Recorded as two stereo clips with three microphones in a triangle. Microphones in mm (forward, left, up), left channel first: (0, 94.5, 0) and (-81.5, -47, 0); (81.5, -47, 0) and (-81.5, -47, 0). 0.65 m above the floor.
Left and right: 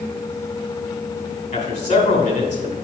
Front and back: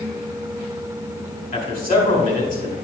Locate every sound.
1.5 s a man speaking: 20° left, 2.5 m